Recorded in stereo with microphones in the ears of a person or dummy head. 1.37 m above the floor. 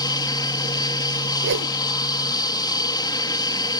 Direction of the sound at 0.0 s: 20° left (ahead or behind).